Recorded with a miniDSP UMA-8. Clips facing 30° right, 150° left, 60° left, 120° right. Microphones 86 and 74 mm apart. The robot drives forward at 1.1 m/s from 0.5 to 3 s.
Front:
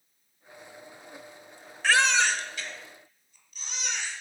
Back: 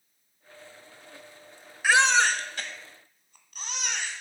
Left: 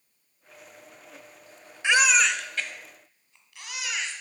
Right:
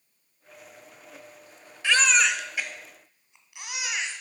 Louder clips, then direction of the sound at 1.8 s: Back 2 dB, left 1 dB; 80° left.